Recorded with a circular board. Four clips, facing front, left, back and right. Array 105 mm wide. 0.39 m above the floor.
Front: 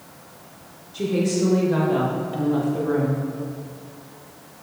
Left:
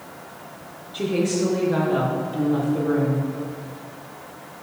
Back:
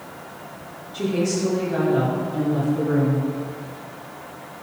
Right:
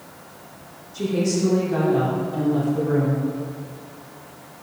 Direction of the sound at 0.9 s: 105° left.